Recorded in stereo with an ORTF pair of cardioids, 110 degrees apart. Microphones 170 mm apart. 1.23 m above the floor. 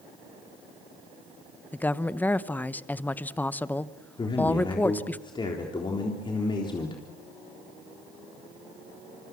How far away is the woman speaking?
About 0.9 m.